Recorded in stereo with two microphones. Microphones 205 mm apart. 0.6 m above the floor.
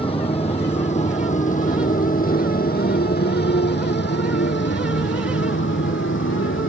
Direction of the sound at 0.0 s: 25° left (ahead or behind).